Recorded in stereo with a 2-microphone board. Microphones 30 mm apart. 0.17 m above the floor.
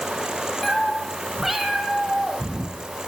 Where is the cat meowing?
5° left (ahead or behind), 2 m; by 3.1 s 15° right (ahead or behind), 3.5 m.